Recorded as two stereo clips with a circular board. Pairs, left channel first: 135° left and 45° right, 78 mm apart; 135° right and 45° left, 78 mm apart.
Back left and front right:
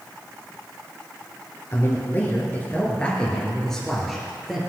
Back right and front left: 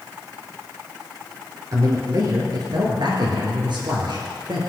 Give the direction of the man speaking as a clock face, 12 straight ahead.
9 o'clock.